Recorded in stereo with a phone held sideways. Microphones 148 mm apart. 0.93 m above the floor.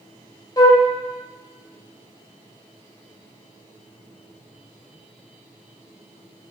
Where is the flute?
30° left (ahead or behind), 1.1 m.